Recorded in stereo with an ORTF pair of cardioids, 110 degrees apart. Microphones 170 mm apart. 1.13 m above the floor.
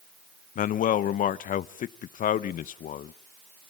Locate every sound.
0.6 s a man speaking: 55° left, 0.7 m